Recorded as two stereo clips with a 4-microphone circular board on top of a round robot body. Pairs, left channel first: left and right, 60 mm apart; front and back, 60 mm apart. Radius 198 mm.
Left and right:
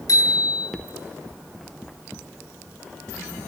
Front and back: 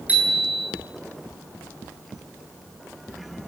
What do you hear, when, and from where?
0.1 s a bicycle bell: 110° left, 9.5 m